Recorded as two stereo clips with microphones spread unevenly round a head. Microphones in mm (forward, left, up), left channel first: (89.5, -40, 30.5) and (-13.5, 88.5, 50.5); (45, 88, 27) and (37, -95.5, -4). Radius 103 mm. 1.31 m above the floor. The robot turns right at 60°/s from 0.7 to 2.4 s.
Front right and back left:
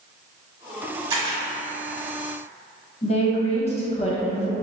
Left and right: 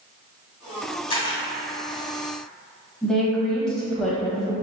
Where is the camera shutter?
95° left, 1.2 m; by 1.4 s 115° left, 1.2 m.